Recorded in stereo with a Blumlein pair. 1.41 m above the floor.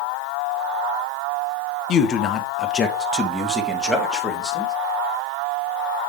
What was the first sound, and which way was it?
A man speaking, 30° left.